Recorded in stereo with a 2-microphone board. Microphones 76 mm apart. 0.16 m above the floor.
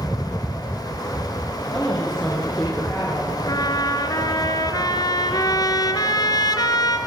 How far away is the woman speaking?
About 6 m.